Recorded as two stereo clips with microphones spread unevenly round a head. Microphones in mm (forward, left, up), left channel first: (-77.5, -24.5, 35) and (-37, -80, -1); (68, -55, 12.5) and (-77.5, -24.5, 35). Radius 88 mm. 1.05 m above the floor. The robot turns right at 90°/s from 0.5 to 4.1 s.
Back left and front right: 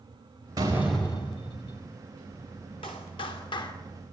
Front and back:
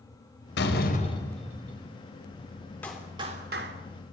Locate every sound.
0.6 s a door slam: straight ahead, 4 m; by 1.9 s 120° left, 4 m
2.8 s a clap: 70° left, 3 m; by 3.7 s 150° left, 3 m